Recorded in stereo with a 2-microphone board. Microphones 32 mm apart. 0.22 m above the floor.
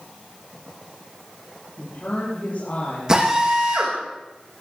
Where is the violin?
I don't hear a violin.